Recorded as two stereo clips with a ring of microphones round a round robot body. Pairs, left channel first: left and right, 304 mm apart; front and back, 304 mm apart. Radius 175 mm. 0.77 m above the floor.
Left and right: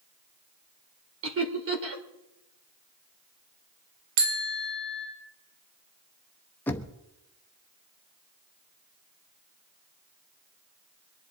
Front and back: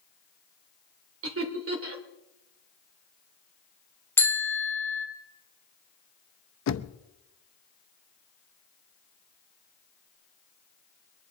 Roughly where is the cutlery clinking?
I don't hear cutlery clinking.